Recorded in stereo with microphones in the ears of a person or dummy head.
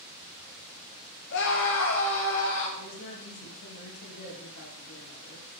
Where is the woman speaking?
80° left, 1.9 m.